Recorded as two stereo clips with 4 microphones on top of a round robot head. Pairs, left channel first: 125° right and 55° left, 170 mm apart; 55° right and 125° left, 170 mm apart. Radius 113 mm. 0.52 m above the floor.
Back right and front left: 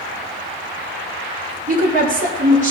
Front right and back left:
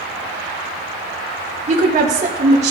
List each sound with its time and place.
1.7 s a woman speaking: 85° left, 2 m